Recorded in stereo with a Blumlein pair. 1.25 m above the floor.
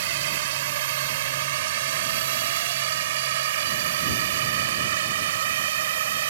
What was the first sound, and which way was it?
A drone, 55° right.